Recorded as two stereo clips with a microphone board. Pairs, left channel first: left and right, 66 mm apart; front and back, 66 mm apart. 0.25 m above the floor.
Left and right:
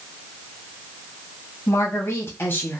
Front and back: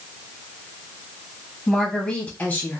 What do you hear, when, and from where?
1.7 s a woman speaking: 80° left, 1.2 m; by 2.8 s 40° left, 1.2 m